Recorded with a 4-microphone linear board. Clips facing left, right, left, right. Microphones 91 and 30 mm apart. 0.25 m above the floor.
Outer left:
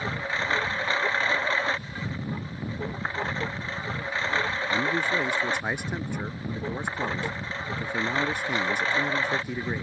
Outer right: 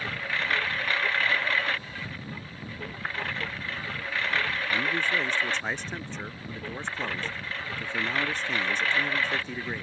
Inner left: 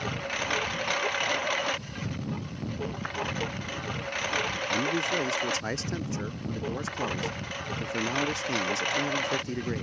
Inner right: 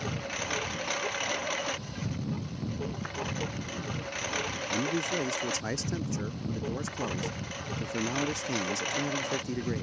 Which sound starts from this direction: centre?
A man speaking, at 4.7 s.